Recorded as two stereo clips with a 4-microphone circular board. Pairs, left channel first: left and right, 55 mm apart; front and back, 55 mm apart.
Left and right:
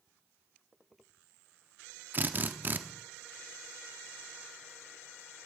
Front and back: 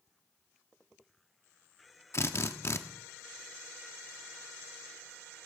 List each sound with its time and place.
2.1 s a drill: 35° right, 1.0 m